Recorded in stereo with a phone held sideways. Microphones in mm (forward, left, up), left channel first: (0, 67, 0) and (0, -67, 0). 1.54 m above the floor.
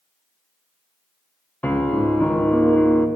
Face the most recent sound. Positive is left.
turn(degrees=10)  # may be behind; listen again after turning